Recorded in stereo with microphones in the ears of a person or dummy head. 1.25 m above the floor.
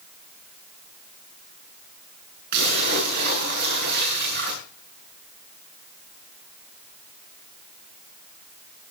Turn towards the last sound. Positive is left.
turn(degrees=-55)  # may be behind; listen again after turning